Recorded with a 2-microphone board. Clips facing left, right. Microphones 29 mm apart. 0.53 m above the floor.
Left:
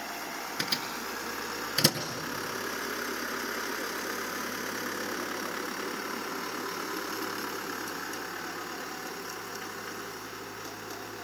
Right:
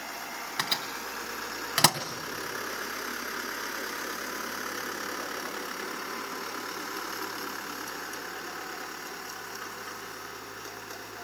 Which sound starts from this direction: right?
A microwave, at 0.6 s.